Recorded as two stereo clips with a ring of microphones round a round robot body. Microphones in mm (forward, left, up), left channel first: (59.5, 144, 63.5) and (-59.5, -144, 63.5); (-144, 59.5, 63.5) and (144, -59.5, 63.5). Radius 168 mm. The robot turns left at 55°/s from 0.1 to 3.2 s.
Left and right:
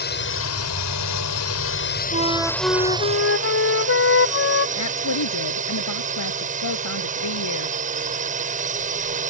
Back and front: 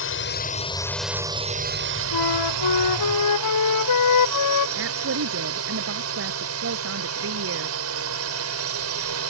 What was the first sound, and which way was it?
A drone, 120° left.